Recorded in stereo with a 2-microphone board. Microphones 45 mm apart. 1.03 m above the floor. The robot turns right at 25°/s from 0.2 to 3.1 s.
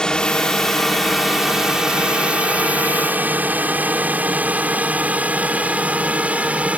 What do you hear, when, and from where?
0.0 s a drone: 15° left (ahead or behind); by 6.8 s 30° right (ahead or behind)